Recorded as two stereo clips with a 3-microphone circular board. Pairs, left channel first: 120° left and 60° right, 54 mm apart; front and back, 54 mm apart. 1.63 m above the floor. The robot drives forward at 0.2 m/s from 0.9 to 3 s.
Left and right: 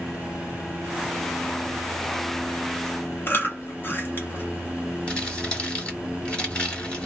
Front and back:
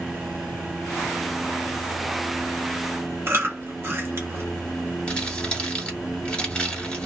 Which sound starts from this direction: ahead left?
Crumpling, at 5.1 s.